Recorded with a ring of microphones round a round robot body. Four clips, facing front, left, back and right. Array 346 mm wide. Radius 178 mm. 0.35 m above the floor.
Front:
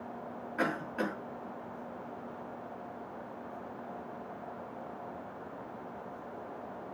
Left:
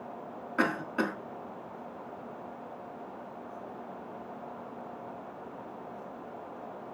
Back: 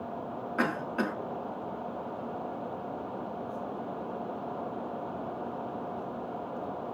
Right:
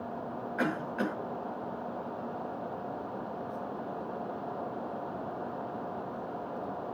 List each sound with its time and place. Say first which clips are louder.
0.6 s a cough: left 2 dB, back 3 dB; 120° left, 4 m